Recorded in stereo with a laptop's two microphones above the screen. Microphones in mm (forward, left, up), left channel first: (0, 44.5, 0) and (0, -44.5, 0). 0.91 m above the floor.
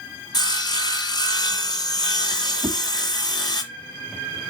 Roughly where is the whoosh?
Centre.